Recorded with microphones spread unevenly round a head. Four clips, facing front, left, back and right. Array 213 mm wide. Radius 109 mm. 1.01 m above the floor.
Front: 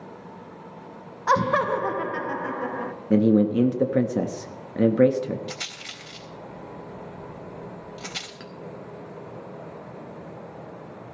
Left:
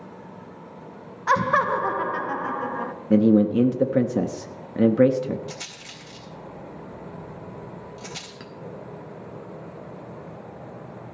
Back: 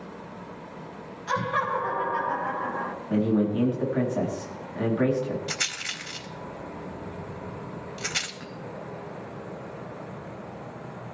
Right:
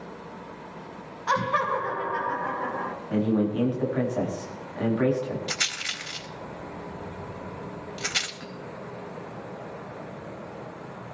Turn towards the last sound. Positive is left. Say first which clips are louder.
# right 1 dB, back 1 dB
turn(degrees=55)